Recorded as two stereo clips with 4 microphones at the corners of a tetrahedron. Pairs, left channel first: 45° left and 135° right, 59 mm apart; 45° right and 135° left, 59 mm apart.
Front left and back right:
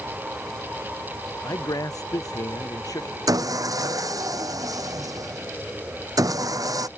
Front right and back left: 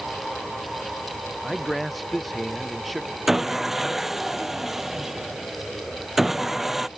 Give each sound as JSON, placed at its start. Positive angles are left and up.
{"t": 1.4, "sound": "a man speaking", "azimuth_deg": 45}
{"t": 3.3, "sound": "sawing", "azimuth_deg": -140}